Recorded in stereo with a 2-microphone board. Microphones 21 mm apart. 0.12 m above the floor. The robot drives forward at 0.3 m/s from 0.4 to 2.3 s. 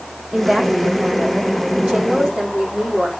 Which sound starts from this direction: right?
A woman speaking, at 0.3 s.